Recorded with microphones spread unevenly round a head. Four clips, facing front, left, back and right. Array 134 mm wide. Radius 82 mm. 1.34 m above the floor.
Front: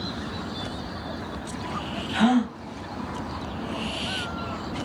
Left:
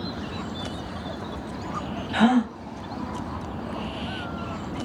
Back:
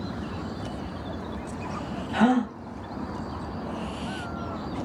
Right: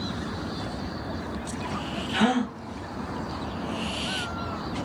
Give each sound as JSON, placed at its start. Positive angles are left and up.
{"t": 2.1, "sound": "a gasp", "azimuth_deg": 140, "distance_m": 0.9}